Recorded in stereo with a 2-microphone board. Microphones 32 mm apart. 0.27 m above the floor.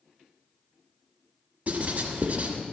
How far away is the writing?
About 1.2 m.